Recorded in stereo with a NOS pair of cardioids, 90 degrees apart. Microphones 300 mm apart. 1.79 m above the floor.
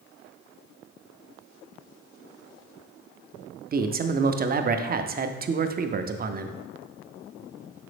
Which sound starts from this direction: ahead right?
A man speaking, at 3.7 s.